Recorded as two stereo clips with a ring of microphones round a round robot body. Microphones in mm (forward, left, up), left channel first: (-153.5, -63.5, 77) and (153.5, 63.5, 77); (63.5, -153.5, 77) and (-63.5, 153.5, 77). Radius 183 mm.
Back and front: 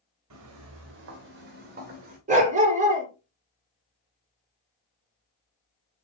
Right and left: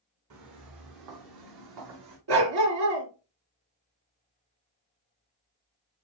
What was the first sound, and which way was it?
Footsteps, 70° left.